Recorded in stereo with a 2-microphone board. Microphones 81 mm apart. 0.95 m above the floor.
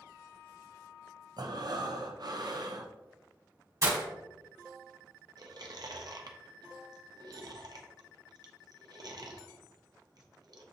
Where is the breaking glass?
45° right (ahead or behind), 1.4 m.